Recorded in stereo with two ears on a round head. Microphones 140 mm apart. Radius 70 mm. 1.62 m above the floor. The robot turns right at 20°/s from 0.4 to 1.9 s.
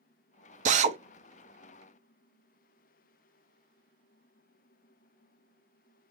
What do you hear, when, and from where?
0.7 s a drill: 50° right (ahead or behind), 0.7 m; by 1.0 s 45° right (ahead or behind), 0.7 m